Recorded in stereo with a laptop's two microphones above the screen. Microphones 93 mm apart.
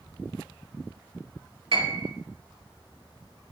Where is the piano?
80° right, 2.5 m.